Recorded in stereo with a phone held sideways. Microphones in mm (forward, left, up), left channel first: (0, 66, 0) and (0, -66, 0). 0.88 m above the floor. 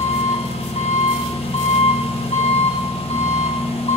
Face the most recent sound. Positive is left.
turn(degrees=45)  # may be behind; listen again after turning